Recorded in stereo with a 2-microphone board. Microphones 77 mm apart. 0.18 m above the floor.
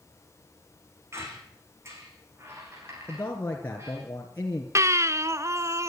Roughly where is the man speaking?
Left.